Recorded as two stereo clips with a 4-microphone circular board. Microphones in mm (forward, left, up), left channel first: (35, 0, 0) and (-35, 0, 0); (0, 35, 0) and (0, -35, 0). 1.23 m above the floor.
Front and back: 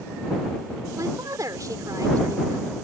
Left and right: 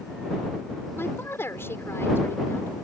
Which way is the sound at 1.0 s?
145° left.